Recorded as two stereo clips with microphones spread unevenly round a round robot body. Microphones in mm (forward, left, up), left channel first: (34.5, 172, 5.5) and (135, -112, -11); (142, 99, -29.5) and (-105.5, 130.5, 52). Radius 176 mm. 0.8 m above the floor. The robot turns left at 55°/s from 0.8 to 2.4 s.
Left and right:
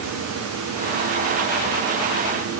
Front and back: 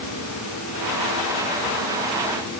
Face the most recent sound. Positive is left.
No sound to turn to.